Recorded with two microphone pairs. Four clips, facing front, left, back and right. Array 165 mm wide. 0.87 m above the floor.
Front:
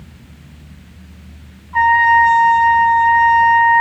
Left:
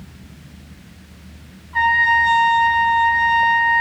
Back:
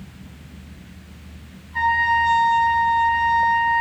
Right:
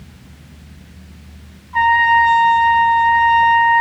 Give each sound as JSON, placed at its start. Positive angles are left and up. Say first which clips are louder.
{"t": 1.7, "sound": "a trumpet", "louder": "right 4 dB, front 8 dB", "azimuth_deg": -35, "distance_m": 2.0}